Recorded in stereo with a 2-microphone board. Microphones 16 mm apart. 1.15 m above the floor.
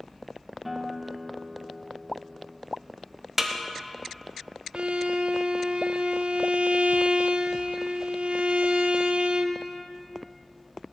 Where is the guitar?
10° right (ahead or behind), 0.7 m.